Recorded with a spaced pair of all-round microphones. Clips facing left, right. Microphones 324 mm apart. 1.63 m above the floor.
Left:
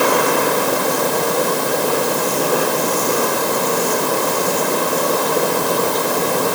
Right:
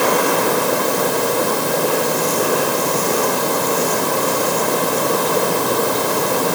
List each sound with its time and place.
Only background noise.